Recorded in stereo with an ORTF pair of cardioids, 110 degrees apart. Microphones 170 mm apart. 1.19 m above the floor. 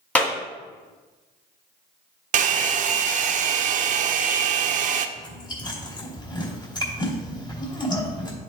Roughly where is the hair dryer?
Ahead right.